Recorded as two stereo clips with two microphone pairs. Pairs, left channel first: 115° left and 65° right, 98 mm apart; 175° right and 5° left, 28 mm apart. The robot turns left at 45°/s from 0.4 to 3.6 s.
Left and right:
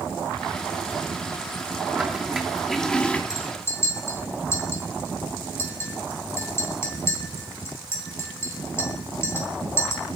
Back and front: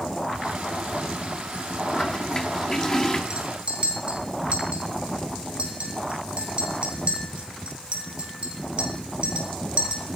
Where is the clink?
60° left, 3.5 m; by 10.2 s 45° left, 3.5 m.